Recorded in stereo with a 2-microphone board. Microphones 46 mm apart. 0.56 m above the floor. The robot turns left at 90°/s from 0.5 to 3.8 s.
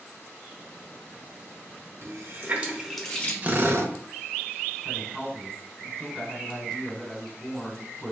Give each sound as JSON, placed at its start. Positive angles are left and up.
{"t": 2.0, "sound": "a running tap", "side_deg": -70, "distance_m": 0.8}
{"t": 3.4, "sound": "a drill", "azimuth_deg": -30, "distance_m": 0.6}
{"t": 4.8, "sound": "a woman speaking", "side_deg": 0, "distance_m": 1.7}